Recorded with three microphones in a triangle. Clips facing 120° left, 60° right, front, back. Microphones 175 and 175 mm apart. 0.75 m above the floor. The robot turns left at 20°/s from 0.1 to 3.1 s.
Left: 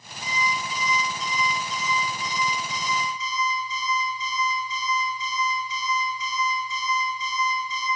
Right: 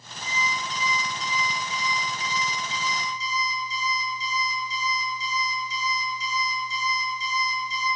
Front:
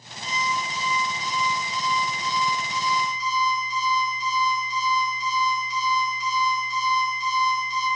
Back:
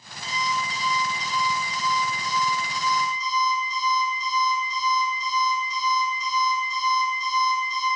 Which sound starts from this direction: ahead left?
An alarm clock, at 0.2 s.